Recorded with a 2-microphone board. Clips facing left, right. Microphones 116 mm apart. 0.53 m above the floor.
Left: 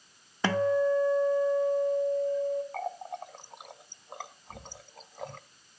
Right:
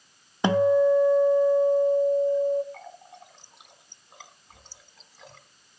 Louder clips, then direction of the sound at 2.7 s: Left 9 dB; 50° left (ahead or behind).